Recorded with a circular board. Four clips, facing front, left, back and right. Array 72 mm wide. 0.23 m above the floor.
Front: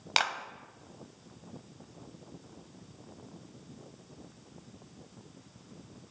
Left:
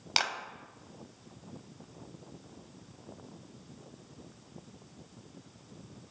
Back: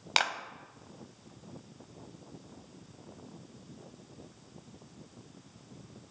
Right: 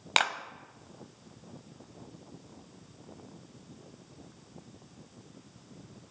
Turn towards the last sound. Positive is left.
turn(degrees=-95)